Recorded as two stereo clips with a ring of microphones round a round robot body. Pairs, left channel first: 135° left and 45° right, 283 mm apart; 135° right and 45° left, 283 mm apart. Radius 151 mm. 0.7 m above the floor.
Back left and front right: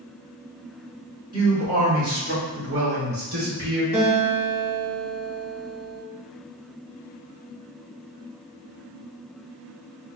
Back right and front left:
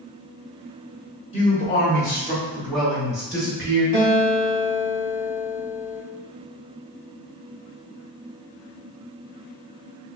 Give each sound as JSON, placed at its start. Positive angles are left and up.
{"t": 1.3, "sound": "a man speaking", "azimuth_deg": -100, "distance_m": 1.1}
{"t": 3.9, "sound": "a guitar", "azimuth_deg": 15, "distance_m": 1.4}